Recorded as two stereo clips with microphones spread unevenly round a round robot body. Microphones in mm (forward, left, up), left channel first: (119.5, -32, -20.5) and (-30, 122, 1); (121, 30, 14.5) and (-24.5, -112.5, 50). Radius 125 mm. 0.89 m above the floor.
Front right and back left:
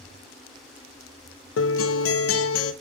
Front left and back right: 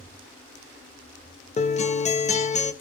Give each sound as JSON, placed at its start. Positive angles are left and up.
{"t": 1.6, "sound": "a guitar", "azimuth_deg": -15, "distance_m": 0.5}